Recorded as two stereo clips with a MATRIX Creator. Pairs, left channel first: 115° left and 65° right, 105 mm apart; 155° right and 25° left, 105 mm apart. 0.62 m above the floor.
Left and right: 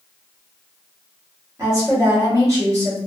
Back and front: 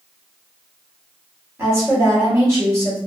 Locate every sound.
1.6 s a woman speaking: 25° right, 1.4 m